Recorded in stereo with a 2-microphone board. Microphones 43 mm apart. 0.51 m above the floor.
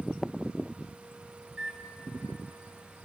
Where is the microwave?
25° right (ahead or behind), 1.2 m.